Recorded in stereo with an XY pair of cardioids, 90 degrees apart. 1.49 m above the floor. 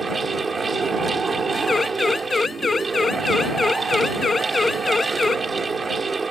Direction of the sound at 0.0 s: 30° right.